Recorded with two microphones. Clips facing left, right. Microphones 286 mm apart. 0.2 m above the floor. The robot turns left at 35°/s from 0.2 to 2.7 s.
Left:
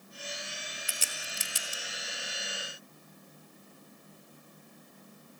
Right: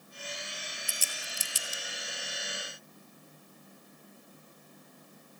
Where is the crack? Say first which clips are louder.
Left 1 dB; 75° left (ahead or behind), 2.5 m; by 1.8 s 60° left (ahead or behind), 2.5 m.